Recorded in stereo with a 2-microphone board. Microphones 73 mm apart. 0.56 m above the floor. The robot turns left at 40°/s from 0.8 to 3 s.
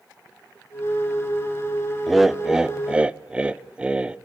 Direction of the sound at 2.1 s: Centre (ahead or behind).